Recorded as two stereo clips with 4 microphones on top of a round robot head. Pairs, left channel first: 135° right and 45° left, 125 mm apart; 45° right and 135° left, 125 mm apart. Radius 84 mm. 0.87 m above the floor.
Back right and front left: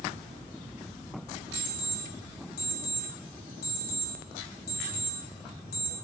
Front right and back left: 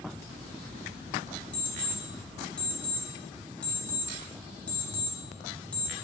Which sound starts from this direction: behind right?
An alarm clock, at 1.5 s.